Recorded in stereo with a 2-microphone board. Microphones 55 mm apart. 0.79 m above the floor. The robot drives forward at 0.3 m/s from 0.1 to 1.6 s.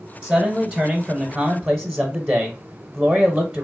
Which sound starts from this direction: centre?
A man speaking, at 0.2 s.